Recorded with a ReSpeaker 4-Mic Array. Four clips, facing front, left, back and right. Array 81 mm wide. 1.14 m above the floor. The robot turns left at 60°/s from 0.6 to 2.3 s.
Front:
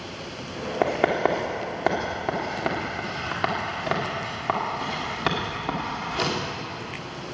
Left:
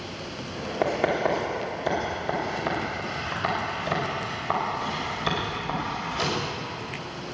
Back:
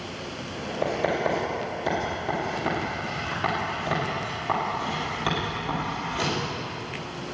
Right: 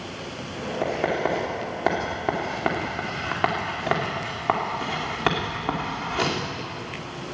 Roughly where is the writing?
Ahead.